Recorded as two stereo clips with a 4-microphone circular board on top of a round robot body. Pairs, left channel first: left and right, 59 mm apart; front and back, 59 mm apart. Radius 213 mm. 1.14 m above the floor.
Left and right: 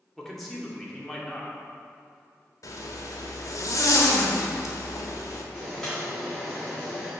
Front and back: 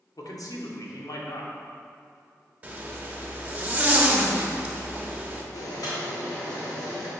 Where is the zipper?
115° left, 1.3 m.